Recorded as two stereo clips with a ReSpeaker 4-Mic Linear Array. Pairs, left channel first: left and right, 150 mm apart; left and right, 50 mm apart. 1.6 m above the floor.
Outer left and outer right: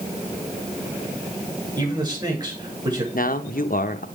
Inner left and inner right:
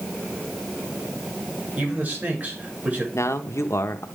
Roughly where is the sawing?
I don't hear sawing.